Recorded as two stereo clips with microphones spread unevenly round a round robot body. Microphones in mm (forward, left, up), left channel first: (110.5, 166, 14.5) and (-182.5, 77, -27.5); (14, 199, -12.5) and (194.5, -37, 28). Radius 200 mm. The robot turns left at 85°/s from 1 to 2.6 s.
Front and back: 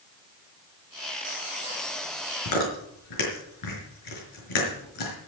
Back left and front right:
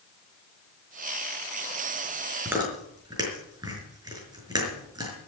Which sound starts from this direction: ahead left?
Chewing, at 2.5 s.